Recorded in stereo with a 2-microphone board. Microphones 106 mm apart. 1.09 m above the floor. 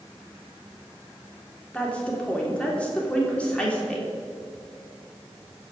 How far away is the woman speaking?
About 3 m.